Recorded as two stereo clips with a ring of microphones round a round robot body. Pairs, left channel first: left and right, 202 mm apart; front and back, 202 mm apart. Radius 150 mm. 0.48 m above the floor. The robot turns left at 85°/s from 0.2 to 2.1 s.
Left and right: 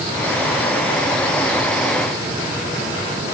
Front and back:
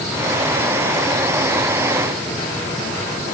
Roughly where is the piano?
No piano in this recording.